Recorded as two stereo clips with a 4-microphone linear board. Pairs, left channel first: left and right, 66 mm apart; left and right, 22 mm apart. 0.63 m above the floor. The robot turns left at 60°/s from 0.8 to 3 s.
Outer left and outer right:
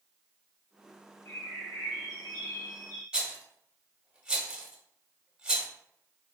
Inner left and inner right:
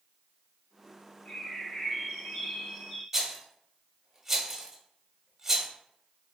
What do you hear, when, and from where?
1.2 s a bird: 145° left, 1.6 m; by 3.0 s 40° left, 1.6 m
3.1 s a rattle: 15° right (ahead or behind), 0.7 m